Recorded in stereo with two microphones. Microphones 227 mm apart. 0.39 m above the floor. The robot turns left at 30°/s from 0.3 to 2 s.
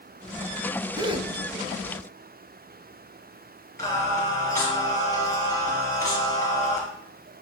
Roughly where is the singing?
Centre.